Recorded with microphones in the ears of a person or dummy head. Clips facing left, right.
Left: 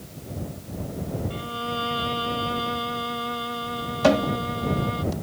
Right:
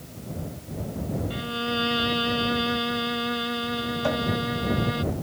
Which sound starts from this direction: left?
A cupboard door, at 4.0 s.